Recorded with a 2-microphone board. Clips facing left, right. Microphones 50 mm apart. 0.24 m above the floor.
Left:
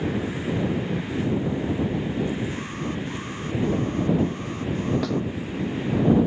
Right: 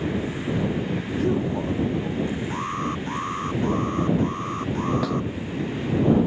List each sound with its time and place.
1.1 s a man speaking: 60° right (ahead or behind)
2.5 s an alarm: 40° right (ahead or behind)
5.0 s a snare drum: 5° right (ahead or behind)